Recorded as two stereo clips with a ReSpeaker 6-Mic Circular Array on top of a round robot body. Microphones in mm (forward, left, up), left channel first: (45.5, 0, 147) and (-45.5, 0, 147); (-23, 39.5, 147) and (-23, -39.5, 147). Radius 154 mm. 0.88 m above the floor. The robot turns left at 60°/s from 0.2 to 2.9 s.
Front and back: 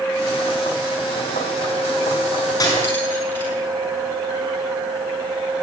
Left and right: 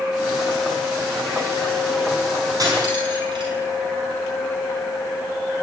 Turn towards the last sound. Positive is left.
turn(degrees=-65)